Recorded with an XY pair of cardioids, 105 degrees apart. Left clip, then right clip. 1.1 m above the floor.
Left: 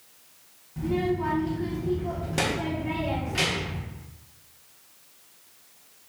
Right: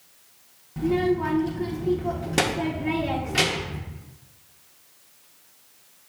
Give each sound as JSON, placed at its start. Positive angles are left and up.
{"t": 0.8, "sound": "a child speaking", "azimuth_deg": -45, "distance_m": 0.8}